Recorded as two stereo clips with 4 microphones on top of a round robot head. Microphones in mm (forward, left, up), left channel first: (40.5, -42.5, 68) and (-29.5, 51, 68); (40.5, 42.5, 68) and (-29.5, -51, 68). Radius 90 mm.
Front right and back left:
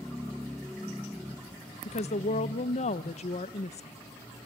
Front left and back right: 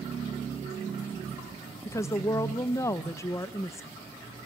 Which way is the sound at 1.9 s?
15° right.